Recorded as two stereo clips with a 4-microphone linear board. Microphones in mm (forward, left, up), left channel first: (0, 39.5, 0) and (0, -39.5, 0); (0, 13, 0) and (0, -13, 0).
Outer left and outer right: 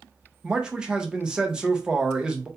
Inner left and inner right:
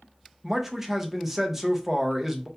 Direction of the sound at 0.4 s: 10° right (ahead or behind).